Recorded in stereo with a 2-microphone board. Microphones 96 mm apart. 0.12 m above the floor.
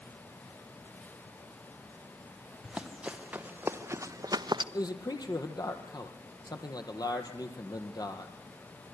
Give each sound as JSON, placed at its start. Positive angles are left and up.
{"t": 2.6, "sound": "running footsteps", "side_deg": -5, "distance_m": 2.5}
{"t": 4.7, "sound": "a man speaking", "side_deg": 45, "distance_m": 3.5}